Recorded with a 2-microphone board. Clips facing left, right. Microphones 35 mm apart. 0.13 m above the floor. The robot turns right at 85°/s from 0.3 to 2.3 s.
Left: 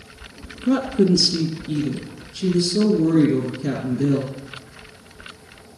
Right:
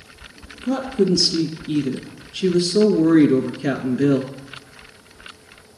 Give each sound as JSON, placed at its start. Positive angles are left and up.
{"t": 0.6, "sound": "a woman speaking", "azimuth_deg": 130, "distance_m": 1.9}